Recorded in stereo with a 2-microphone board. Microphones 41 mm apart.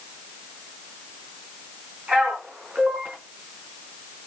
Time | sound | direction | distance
2.1 | a man speaking | 35° right (ahead or behind) | 3.5 m